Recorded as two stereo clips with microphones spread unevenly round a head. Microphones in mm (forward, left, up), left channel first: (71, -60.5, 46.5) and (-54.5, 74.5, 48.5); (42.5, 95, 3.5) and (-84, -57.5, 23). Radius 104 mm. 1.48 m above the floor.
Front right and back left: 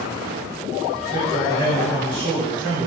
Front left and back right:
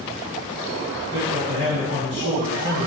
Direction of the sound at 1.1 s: 155° right.